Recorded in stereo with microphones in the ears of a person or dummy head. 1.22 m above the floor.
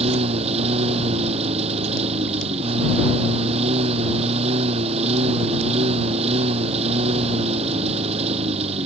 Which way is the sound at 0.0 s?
35° right (ahead or behind).